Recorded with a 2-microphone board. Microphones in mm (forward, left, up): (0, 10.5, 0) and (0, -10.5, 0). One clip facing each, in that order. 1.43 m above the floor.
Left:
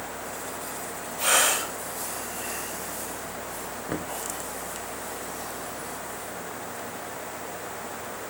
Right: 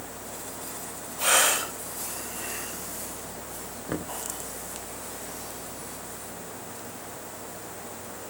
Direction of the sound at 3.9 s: Centre (ahead or behind).